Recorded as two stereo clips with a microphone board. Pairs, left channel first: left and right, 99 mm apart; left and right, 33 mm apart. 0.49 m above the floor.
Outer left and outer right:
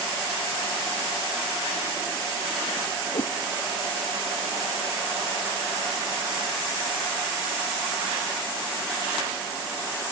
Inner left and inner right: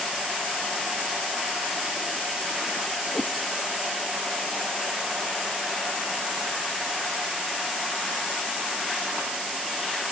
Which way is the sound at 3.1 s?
75° left (ahead or behind).